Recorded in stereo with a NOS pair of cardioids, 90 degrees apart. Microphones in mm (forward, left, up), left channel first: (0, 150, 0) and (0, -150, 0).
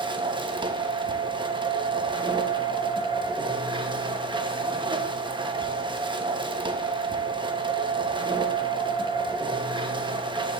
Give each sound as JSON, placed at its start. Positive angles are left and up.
{"t": 0.0, "sound": "a machine running", "azimuth_deg": -15, "distance_m": 1.1}